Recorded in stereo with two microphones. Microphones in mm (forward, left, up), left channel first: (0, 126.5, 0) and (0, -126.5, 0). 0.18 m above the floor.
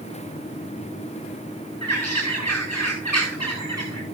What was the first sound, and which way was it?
A bird, 85° left.